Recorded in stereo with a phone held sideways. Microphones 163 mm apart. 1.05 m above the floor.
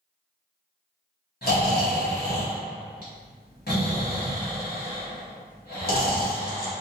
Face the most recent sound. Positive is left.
turn(degrees=70)  # may be behind; listen again after turning